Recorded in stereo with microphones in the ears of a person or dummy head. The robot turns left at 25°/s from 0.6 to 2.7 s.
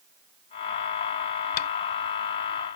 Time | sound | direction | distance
1.6 | tapping | 50° left (ahead or behind) | ?